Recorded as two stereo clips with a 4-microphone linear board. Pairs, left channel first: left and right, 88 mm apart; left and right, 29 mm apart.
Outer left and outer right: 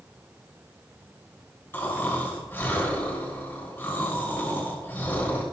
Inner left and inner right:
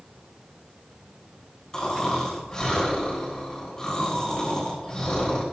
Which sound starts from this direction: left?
Snoring, at 1.7 s.